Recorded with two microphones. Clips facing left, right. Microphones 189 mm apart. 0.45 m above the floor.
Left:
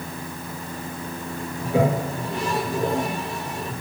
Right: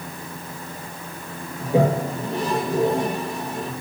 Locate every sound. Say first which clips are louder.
1.6 s a toilet flushing: right 2 dB; 35° right (ahead or behind), 9 m